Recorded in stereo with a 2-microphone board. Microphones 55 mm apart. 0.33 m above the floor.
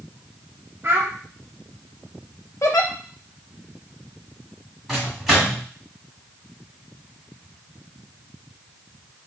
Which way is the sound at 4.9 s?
Centre (ahead or behind).